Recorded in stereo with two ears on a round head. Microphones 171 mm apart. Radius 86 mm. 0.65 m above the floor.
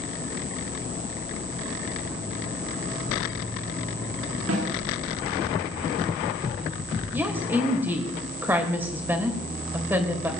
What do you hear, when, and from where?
4.5 s a snare drum: 85° right, 9 m
7.1 s a woman speaking: 10° right (ahead or behind), 2.5 m